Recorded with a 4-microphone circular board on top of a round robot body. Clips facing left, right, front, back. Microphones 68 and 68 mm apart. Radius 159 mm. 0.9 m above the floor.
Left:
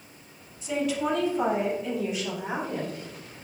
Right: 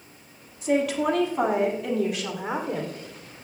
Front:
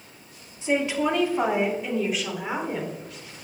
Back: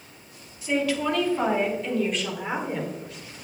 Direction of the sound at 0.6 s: 65° right.